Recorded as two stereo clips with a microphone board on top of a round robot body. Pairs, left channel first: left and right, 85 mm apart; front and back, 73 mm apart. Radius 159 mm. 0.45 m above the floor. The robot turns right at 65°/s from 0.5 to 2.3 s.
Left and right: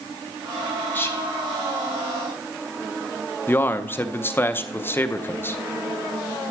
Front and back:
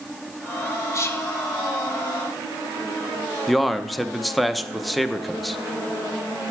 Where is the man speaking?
90° left, 0.8 m.